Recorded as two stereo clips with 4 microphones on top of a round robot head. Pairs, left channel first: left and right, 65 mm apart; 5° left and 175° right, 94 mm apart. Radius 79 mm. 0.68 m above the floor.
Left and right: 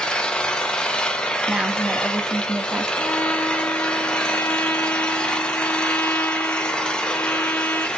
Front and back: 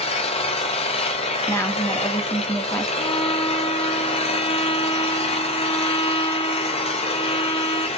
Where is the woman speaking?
30° right, 1.0 m.